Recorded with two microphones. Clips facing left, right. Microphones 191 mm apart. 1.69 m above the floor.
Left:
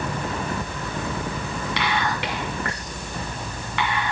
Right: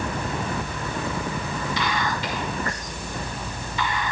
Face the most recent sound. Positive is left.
turn(degrees=75)  # may be behind; listen again after turning